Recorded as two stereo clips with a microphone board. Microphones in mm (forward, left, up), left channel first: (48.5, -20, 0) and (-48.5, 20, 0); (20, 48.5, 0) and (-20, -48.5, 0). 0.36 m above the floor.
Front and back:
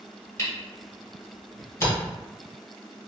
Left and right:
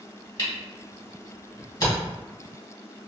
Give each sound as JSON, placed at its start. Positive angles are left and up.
{"t": 0.4, "sound": "a camera shutter", "azimuth_deg": 30, "distance_m": 1.4}